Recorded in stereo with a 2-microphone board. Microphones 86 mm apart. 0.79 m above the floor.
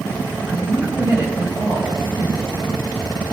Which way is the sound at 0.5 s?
30° right (ahead or behind).